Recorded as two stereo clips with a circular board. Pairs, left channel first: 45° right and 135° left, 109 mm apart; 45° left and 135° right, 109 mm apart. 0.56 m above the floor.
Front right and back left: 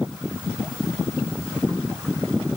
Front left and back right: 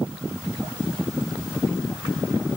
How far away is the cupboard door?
No cupboard door in this recording.